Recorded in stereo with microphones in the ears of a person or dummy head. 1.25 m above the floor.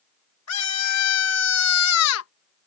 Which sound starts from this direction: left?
A scream, at 0.5 s.